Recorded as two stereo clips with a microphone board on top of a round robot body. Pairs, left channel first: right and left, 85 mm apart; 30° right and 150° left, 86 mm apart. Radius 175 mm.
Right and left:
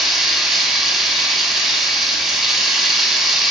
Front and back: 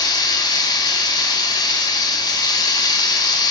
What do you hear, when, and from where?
0.0 s running water: 5° left, 1.8 m